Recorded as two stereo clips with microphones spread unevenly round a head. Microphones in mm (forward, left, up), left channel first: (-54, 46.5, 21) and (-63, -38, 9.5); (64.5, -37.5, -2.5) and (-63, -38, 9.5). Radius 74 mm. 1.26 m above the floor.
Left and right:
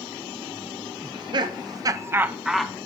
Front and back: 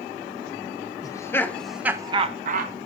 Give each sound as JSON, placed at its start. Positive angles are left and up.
{"t": 1.0, "sound": "laughter", "azimuth_deg": -60, "distance_m": 1.0}